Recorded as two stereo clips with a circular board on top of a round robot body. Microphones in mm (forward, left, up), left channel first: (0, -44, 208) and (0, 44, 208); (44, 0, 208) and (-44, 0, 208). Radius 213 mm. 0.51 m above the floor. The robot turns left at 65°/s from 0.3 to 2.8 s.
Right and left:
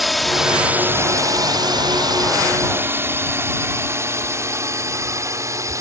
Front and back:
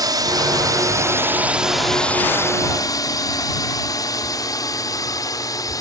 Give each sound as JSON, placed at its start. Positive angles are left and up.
{"t": 0.0, "sound": "a drone", "azimuth_deg": 180}